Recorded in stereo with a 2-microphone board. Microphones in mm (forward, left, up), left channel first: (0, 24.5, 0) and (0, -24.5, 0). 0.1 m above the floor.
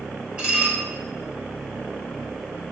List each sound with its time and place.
0.4 s dishes clattering: 20° right (ahead or behind), 1.6 m